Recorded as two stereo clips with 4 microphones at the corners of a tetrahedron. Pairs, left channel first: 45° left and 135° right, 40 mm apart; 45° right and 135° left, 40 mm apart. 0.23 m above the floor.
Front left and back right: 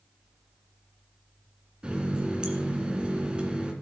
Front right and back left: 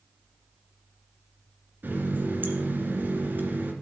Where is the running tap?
165° left, 2 m.